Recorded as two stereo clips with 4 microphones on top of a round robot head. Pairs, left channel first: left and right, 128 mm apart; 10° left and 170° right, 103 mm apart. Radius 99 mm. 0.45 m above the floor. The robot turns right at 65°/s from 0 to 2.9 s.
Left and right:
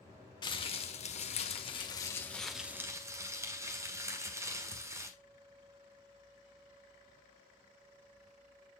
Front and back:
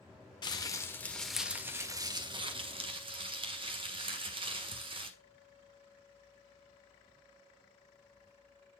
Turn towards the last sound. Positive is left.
turn(degrees=-155)